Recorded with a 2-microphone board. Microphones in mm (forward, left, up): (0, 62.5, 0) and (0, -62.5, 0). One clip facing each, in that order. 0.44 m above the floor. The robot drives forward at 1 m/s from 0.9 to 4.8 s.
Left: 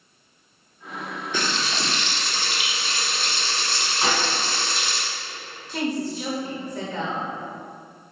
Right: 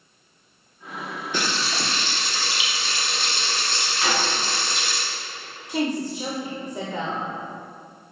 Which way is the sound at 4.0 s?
30° left (ahead or behind).